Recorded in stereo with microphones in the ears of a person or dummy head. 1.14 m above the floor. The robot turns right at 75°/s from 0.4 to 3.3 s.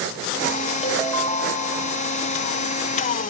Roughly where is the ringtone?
Ahead.